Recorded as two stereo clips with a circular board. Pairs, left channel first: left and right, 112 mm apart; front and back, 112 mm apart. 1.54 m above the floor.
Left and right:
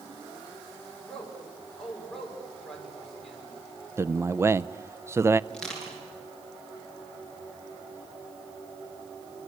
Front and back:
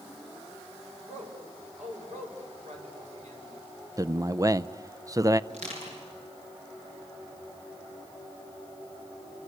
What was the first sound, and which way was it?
A man speaking, 175° left.